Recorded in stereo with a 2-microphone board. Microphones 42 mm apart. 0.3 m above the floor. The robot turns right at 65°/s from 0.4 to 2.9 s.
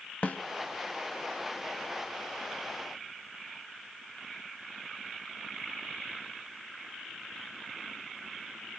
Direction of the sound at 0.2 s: 45° left (ahead or behind).